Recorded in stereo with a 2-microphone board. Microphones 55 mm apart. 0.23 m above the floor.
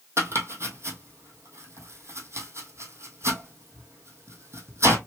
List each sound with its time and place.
0.2 s chopping: 50° right (ahead or behind), 1.4 m